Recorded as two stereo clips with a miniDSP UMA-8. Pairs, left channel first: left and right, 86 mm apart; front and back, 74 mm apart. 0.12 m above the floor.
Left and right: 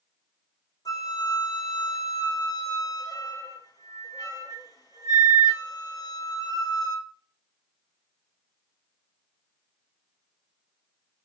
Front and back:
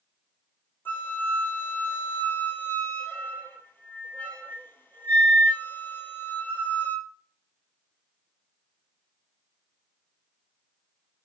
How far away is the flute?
About 0.7 m.